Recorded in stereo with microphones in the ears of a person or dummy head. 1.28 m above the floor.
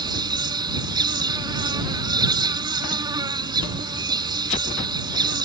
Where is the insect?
15° right (ahead or behind).